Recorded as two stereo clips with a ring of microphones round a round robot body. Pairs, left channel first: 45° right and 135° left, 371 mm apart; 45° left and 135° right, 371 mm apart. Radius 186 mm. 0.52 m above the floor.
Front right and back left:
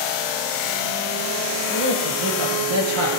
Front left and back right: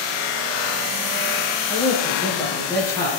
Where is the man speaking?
125° left, 9 m; by 3.1 s 130° left, 8.5 m.